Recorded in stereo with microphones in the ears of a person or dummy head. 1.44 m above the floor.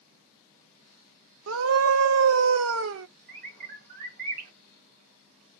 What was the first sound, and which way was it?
A scream, 70° right (ahead or behind).